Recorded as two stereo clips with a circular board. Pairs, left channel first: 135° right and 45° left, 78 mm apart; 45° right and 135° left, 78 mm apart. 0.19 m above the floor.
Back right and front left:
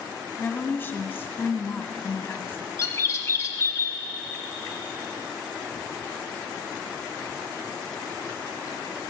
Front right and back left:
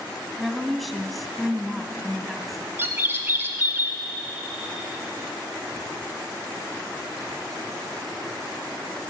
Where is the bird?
170° right, 1.2 m.